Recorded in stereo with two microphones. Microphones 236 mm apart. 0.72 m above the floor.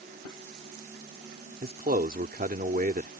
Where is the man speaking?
40° right (ahead or behind).